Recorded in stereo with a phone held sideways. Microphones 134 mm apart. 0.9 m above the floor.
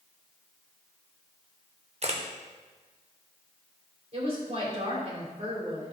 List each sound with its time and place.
2.0 s a camera shutter: 55° right (ahead or behind), 0.9 m
4.1 s a woman speaking: 50° right (ahead or behind), 3 m